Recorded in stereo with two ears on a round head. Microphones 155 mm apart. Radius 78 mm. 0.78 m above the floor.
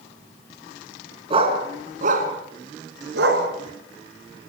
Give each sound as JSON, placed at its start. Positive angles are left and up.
{"t": 1.3, "sound": "a dog barking", "side_deg": -35, "distance_m": 4.0}